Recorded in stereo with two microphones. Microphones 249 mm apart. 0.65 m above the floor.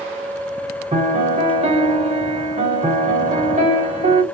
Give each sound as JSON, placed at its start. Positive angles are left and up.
{"t": 0.9, "sound": "a piano", "side_deg": -25, "distance_m": 1.0}